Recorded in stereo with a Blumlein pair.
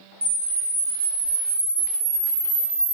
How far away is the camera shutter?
About 0.6 m.